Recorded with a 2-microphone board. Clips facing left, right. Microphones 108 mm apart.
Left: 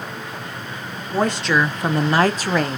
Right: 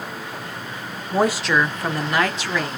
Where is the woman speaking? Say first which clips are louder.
Even; 15° right (ahead or behind), 0.8 m; by 2.8 s 50° left (ahead or behind), 1.0 m.